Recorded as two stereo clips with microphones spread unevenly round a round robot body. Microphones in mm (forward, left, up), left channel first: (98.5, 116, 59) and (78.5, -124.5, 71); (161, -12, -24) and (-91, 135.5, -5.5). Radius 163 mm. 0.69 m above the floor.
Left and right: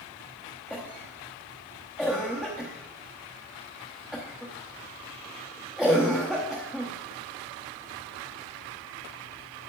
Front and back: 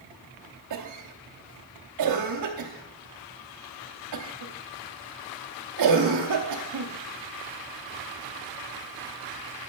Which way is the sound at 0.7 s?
175° left.